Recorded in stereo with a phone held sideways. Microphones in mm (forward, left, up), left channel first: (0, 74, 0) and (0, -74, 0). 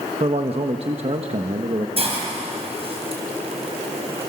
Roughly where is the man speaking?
Right.